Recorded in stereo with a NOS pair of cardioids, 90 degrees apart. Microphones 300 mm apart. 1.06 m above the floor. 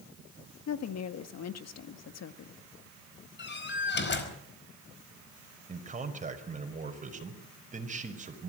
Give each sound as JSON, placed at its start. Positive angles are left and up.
{"t": 0.7, "sound": "a woman speaking", "azimuth_deg": 60, "distance_m": 1.7}
{"t": 3.4, "sound": "a door slam", "azimuth_deg": 35, "distance_m": 4.5}
{"t": 5.7, "sound": "a man speaking", "azimuth_deg": -25, "distance_m": 5.0}